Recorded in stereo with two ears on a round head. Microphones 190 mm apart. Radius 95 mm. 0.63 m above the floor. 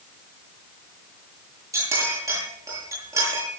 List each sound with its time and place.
1.7 s a clink: 15° right (ahead or behind), 8 m